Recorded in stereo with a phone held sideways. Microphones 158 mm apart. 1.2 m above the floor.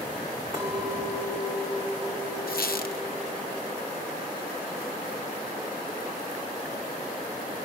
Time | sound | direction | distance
0.5 | a clink | 40° right (ahead or behind) | 3.5 m
2.5 | a squeak | 80° left | 0.6 m